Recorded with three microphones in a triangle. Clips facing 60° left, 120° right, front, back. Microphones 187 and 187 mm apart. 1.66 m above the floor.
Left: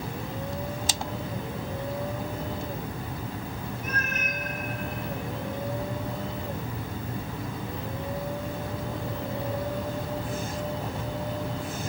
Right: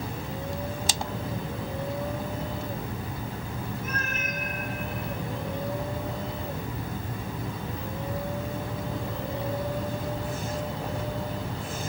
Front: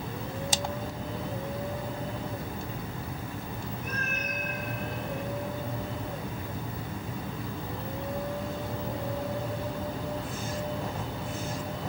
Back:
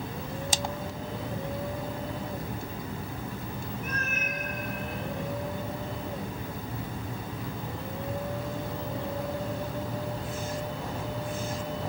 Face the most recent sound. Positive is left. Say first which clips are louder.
# even, even
turn(degrees=180)